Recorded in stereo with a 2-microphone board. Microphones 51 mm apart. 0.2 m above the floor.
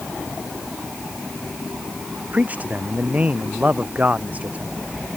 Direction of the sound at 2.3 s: 30° right (ahead or behind).